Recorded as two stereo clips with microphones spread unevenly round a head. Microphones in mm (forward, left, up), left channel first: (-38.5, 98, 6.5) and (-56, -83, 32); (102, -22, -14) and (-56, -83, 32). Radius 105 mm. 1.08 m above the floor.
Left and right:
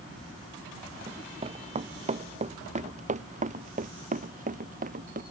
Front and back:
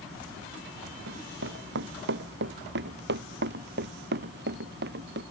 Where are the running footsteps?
155° right; by 5.2 s 140° right.